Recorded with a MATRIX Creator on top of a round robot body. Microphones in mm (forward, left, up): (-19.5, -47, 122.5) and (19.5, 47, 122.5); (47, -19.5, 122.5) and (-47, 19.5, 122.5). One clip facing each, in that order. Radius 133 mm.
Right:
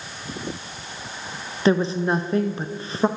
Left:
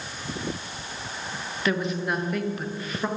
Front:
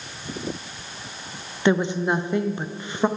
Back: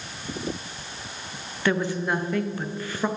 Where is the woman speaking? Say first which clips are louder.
Right 7 dB, front 4 dB; 75° right, 0.5 m.